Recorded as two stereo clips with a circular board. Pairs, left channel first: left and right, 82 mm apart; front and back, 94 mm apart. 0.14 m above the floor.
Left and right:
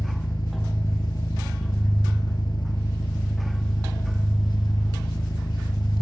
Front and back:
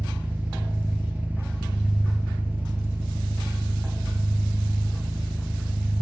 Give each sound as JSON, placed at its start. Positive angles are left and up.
{"t": 0.0, "sound": "an engine running", "azimuth_deg": 110, "distance_m": 0.8}